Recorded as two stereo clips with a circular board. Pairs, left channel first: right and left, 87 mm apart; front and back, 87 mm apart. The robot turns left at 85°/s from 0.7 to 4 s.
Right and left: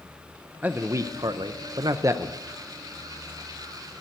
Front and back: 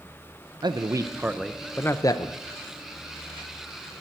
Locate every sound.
0.6 s a man speaking: 160° left, 0.6 m; by 2.3 s 20° left, 0.6 m